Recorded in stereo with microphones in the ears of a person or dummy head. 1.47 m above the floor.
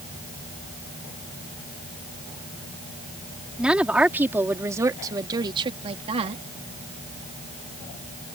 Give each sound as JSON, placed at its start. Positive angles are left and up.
{"t": 3.6, "sound": "a woman speaking", "side_deg": -5}